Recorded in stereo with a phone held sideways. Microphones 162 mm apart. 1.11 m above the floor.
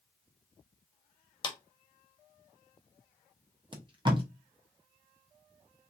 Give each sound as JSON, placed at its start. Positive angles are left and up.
{"t": 1.4, "sound": "a clap", "side_deg": 30, "distance_m": 0.8}
{"t": 3.7, "sound": "tape being pulled", "side_deg": -30, "distance_m": 0.8}